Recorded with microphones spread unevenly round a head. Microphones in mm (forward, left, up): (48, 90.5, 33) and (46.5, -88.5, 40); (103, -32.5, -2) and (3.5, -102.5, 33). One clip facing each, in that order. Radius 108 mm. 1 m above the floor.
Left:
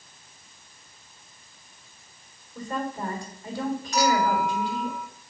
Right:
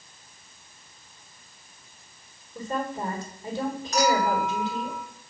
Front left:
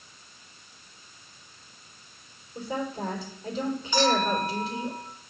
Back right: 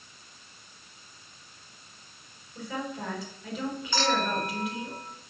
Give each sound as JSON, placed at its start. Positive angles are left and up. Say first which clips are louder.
{"t": 2.5, "sound": "a woman speaking", "louder": "right 1 dB, front left 3 dB", "azimuth_deg": -25, "distance_m": 3.5}
{"t": 3.9, "sound": "a clink", "louder": "even, front left 4 dB", "azimuth_deg": -45, "distance_m": 3.5}